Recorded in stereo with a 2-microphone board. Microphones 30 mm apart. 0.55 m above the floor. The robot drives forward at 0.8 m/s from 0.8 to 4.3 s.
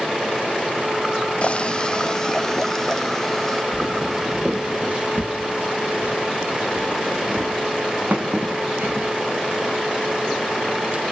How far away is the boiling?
About 0.5 m.